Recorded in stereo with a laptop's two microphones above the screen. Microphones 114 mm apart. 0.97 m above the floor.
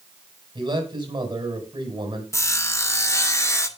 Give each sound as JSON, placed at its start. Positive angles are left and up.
{"t": 0.6, "sound": "a man speaking", "side_deg": -45, "distance_m": 7.5}
{"t": 2.3, "sound": "sawing", "side_deg": 25, "distance_m": 1.0}